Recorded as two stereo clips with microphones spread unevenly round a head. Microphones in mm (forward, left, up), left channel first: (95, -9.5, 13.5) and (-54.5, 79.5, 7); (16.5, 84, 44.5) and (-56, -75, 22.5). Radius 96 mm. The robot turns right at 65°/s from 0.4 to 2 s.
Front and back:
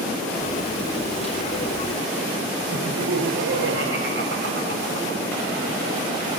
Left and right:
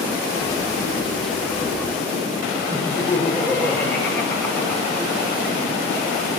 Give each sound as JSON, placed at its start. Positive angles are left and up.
{"t": 2.7, "sound": "laughter", "azimuth_deg": 145, "distance_m": 4.5}